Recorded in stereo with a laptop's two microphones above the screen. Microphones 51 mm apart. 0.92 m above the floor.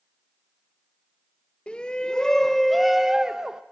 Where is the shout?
20° left (ahead or behind), 0.7 m; by 3.6 s 15° right (ahead or behind), 0.8 m.